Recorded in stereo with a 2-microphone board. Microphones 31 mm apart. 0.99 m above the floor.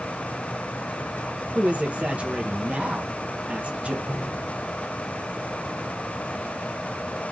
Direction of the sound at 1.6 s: 45° right (ahead or behind).